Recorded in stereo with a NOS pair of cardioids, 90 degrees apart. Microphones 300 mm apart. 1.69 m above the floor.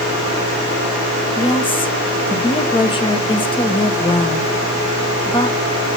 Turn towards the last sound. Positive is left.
turn(degrees=15)